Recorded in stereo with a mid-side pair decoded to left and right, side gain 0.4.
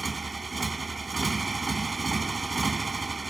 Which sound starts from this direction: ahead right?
A motorcycle, at 0.0 s.